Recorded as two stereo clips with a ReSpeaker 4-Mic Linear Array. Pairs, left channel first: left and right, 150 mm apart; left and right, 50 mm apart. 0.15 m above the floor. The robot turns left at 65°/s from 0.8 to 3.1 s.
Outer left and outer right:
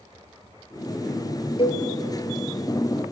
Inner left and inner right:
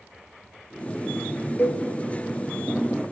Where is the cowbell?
35° left (ahead or behind), 2.5 m; by 1.8 s 50° left (ahead or behind), 2.5 m.